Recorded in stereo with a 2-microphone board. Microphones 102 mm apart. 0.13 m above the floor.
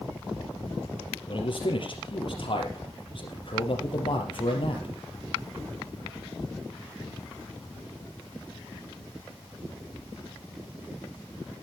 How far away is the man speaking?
About 3.5 m.